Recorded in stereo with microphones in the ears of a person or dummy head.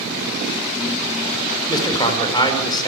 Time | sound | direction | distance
1.7 | a man speaking | 25° left (ahead or behind) | 5 m